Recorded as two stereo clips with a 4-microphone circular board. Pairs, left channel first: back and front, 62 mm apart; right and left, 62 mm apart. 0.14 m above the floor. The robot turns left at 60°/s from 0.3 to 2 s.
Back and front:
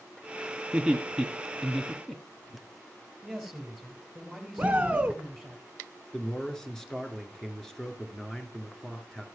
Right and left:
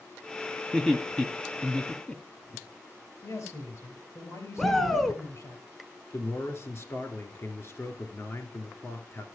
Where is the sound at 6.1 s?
100° right, 2 m.